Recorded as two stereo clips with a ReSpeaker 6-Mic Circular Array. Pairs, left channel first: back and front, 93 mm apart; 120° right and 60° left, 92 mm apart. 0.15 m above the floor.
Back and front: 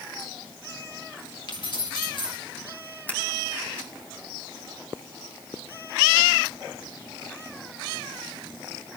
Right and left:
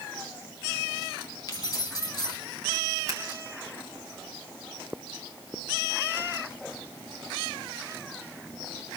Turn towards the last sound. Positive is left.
turn(degrees=110)